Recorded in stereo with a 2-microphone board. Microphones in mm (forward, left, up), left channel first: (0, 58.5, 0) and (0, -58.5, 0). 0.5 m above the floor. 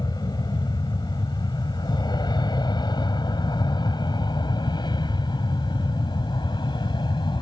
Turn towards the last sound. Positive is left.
turn(degrees=40)  # may be behind; listen again after turning